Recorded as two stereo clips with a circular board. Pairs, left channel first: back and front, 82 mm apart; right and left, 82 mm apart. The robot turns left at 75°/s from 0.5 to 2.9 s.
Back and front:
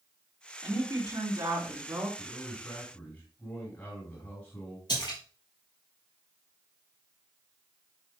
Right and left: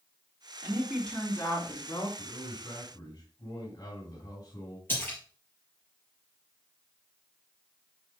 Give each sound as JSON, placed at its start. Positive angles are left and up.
{"t": 0.6, "sound": "a woman speaking", "azimuth_deg": 25, "distance_m": 4.5}
{"t": 2.2, "sound": "a man speaking", "azimuth_deg": -70, "distance_m": 4.0}
{"t": 4.9, "sound": "a splash", "azimuth_deg": -155, "distance_m": 4.0}